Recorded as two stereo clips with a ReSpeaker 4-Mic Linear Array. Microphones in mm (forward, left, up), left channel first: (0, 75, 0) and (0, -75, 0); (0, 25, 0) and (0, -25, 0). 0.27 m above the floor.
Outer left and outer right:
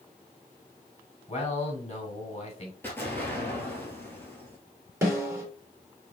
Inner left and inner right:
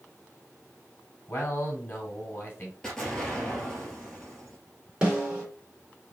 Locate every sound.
1.3 s a man speaking: 45° left (ahead or behind), 1.9 m
2.8 s an explosion: 15° left (ahead or behind), 2.0 m
5.0 s a snare drum: 15° right (ahead or behind), 3 m